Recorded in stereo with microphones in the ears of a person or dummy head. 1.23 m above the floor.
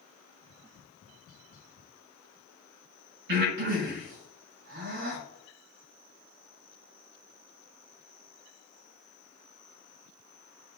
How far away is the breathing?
About 3.5 m.